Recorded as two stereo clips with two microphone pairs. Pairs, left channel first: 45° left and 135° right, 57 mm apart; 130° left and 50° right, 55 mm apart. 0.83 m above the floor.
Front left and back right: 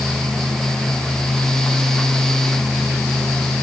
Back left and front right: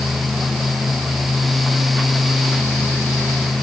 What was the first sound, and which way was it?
Only background noise.